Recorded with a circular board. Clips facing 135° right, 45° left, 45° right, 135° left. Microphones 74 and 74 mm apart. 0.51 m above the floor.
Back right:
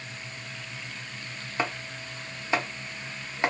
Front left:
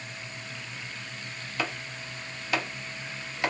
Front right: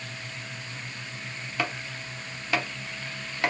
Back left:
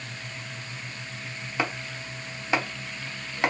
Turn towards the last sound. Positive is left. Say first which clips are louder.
# back right 2 dB, back left 2 dB
turn(degrees=-175)